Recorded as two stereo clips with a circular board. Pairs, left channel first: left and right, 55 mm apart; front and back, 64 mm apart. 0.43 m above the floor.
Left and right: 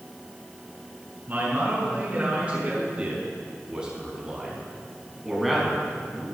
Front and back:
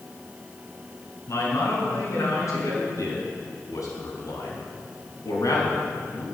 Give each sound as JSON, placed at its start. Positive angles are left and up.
{"t": 1.3, "sound": "a man speaking", "azimuth_deg": -35, "distance_m": 5.5}